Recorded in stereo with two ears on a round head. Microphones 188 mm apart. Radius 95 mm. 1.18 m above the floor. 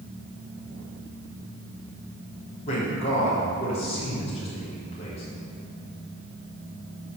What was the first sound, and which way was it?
A man speaking, 30° left (ahead or behind).